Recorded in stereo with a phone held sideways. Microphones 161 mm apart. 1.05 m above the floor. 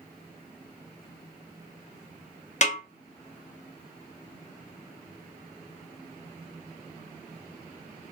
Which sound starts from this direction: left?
A snare drum, at 2.6 s.